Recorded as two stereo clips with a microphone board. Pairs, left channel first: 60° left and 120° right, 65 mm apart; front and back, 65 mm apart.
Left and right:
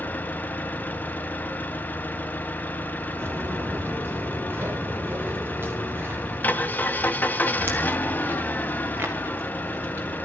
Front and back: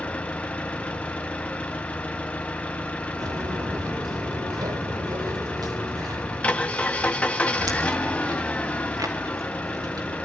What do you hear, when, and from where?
0.0 s an engine running: 45° left, 1.4 m
3.2 s footsteps: 170° right, 1.7 m; by 10.1 s 175° right, 5.5 m